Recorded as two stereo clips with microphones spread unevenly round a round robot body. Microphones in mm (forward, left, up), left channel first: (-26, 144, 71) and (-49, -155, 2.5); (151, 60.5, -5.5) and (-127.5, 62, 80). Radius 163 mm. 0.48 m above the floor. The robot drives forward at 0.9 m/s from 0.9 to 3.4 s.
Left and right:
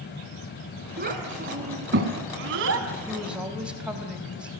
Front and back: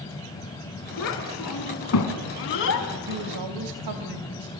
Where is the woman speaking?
175° right, 3 m.